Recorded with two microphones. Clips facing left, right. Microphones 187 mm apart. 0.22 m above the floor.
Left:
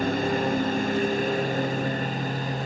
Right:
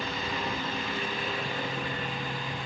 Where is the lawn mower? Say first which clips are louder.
Left 10 dB; 50° left (ahead or behind); by 2.7 s 40° left (ahead or behind).